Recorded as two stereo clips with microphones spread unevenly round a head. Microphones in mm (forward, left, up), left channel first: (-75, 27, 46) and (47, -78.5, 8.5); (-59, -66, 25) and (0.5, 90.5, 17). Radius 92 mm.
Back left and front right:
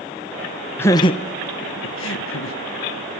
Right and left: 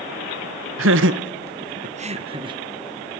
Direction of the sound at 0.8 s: 60° left.